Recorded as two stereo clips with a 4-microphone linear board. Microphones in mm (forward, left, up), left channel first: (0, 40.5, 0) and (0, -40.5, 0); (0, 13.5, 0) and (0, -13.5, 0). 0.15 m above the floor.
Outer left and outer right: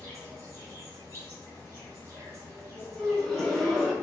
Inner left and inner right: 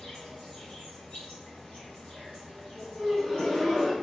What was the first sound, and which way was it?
An insect, 40° left (ahead or behind).